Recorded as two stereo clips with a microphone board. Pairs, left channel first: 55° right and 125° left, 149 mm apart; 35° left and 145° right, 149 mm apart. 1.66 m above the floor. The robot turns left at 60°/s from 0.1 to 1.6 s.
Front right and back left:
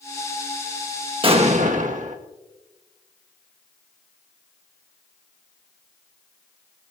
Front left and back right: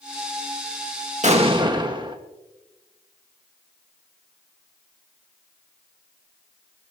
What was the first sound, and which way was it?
An explosion, 175° left.